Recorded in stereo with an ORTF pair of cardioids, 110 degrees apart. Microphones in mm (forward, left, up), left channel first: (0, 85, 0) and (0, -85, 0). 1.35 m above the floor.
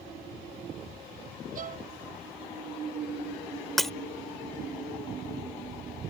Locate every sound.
1.6 s a violin: 50° right
3.8 s breaking glass: straight ahead